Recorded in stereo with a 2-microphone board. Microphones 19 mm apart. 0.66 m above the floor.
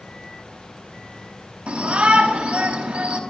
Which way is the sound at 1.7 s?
80° right.